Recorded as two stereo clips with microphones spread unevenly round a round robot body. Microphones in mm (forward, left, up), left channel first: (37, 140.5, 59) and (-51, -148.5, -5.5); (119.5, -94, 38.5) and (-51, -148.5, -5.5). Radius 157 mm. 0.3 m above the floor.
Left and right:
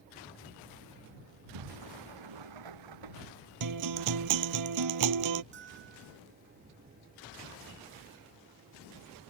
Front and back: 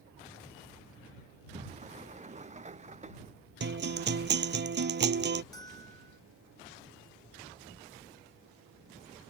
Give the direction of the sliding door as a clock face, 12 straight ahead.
4 o'clock.